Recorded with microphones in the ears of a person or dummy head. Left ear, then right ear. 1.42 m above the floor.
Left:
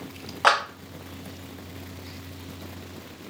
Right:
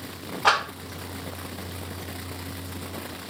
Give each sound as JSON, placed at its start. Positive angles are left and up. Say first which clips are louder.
{"t": 0.4, "sound": "a clap", "louder": "left 1 dB", "side_deg": 40, "distance_m": 1.1}